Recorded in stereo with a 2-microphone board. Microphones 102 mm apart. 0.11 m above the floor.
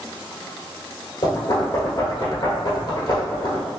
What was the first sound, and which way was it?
Knocking, 40° left (ahead or behind).